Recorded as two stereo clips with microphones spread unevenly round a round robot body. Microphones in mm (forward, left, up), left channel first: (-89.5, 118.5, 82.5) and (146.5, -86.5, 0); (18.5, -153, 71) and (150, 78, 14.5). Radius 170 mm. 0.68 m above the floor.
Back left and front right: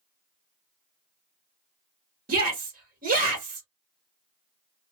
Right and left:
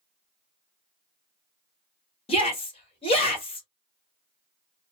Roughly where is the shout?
Ahead right.